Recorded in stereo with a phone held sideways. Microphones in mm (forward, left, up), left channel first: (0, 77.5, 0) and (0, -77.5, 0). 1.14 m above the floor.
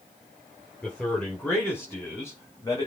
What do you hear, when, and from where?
0.8 s a man speaking: 10° left (ahead or behind), 5 m; by 2.9 s 25° left (ahead or behind), 5.5 m